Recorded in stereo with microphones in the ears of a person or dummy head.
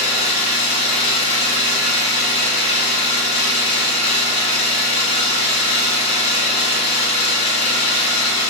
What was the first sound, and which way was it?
An engine running, 35° left (ahead or behind).